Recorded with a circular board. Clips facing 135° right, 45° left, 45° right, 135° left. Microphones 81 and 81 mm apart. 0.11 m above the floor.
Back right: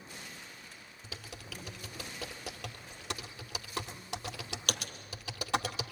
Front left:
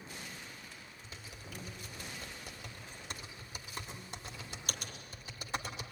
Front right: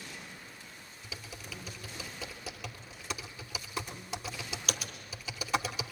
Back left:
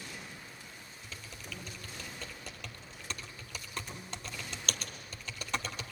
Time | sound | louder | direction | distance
1.0 | typing on a keyboard | back right 5 dB, front right 2 dB | 130° right | 2 m